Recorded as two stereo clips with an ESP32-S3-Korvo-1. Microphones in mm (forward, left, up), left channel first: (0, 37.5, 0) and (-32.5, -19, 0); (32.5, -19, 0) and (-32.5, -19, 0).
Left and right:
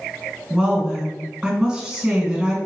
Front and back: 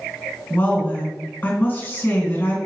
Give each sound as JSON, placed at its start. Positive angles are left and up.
{"t": 0.5, "sound": "a woman speaking", "azimuth_deg": -45, "distance_m": 1.9}